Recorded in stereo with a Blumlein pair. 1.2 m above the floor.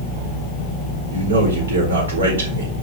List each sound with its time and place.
1.1 s a man speaking: 70° right, 4 m